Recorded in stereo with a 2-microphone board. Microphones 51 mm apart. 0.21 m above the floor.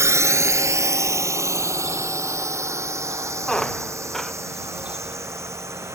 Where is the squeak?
5° left (ahead or behind).